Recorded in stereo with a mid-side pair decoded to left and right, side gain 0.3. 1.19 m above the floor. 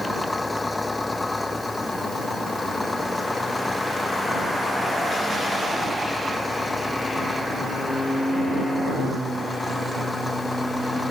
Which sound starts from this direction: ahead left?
An engine running, at 0.0 s.